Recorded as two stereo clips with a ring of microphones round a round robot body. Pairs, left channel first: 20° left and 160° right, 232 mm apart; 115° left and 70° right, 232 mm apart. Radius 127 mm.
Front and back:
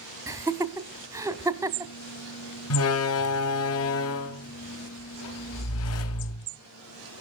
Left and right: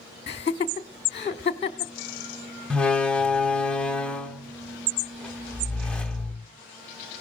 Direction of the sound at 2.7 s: 25° left.